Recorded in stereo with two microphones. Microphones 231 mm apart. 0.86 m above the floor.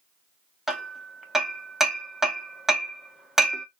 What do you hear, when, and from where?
0.7 s hammering: centre (ahead or behind), 1.0 m